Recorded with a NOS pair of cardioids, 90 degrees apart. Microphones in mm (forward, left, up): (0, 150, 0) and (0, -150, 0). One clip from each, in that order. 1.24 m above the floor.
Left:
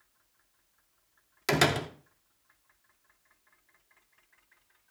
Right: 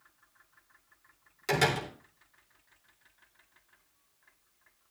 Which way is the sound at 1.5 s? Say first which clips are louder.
Left 2 dB; 50° left.